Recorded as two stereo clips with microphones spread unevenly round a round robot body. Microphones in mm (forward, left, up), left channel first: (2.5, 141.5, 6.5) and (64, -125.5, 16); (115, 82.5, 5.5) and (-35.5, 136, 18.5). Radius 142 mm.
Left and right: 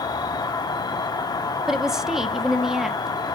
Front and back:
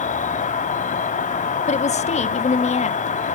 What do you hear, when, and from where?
0.0 s an insect: 25° left, 0.7 m
1.7 s a woman speaking: 10° left, 0.9 m